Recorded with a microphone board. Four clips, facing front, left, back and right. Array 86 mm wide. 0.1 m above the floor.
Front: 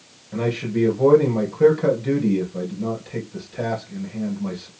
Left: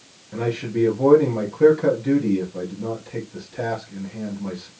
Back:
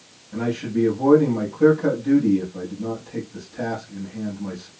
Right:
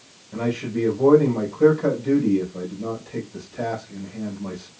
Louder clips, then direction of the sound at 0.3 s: Left 1 dB, even; 30° left.